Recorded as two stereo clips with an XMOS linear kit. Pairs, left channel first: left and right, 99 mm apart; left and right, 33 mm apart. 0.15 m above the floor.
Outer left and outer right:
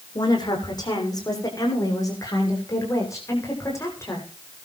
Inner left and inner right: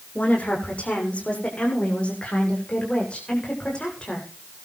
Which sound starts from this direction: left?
A woman speaking, at 0.1 s.